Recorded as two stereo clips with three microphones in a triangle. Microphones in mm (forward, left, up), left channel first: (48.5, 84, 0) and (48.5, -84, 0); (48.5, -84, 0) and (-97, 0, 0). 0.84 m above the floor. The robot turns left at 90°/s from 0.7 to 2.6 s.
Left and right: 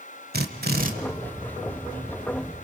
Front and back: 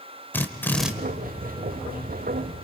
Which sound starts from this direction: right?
A drill, at 0.3 s.